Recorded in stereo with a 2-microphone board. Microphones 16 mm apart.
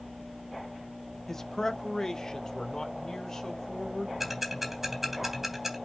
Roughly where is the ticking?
Centre.